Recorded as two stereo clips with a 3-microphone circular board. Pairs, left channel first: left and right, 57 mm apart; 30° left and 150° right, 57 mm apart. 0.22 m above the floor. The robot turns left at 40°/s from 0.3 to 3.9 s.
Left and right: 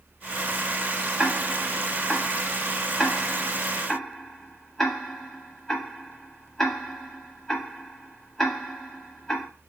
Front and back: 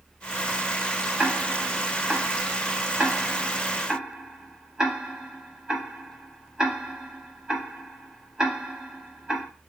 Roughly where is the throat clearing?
No throat clearing in this recording.